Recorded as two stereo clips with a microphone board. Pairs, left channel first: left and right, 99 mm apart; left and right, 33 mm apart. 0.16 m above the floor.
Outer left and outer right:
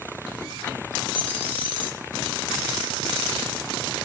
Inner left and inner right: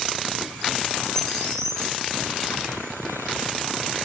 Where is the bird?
15° left (ahead or behind), 5 m.